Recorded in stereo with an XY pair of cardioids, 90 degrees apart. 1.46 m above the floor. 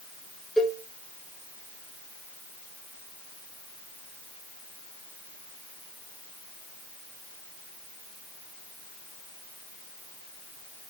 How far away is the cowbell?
About 1.1 m.